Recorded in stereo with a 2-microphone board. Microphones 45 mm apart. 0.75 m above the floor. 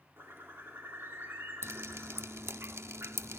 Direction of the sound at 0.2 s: 55° right (ahead or behind).